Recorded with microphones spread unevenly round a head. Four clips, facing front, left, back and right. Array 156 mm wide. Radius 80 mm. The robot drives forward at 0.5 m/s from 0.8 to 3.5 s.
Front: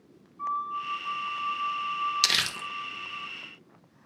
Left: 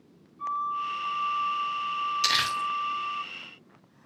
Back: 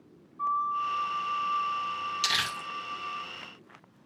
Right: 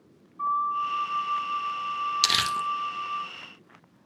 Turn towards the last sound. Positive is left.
turn(degrees=-80)